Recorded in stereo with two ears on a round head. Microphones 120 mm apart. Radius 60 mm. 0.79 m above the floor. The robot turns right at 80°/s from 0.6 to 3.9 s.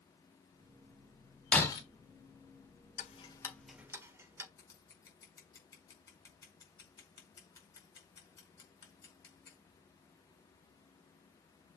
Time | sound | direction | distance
1.5 | breaking glass | 10° left (ahead or behind) | 2 m
3.0 | ticking | 55° left (ahead or behind) | 1.6 m
4.6 | scissors | 25° left (ahead or behind) | 4.5 m